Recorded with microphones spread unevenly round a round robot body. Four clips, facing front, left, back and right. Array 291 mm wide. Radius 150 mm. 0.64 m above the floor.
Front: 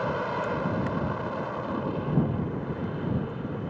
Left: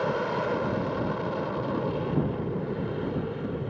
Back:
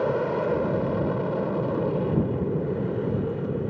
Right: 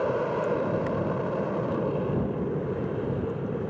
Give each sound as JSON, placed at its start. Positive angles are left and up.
{"t": 0.0, "sound": "an aircraft", "azimuth_deg": -165}